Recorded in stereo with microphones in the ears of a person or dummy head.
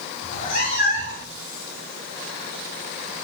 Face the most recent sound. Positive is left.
turn(degrees=65)  # may be behind; listen again after turning